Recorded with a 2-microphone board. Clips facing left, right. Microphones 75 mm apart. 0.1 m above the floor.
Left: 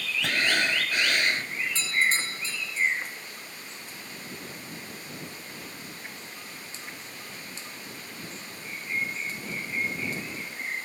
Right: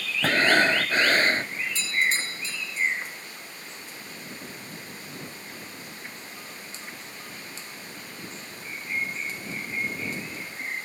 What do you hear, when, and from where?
0.2 s breathing: 40° right (ahead or behind)
1.8 s a doorbell: 35° left (ahead or behind)